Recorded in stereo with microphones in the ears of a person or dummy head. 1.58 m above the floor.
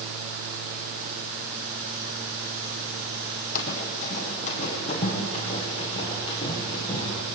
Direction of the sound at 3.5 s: 45° left (ahead or behind).